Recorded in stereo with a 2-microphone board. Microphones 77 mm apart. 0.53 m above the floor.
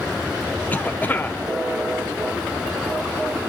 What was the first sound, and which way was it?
A cough, 25° left (ahead or behind).